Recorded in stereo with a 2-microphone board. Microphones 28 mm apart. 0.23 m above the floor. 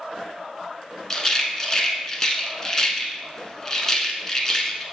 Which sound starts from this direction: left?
A rattle, at 1.1 s.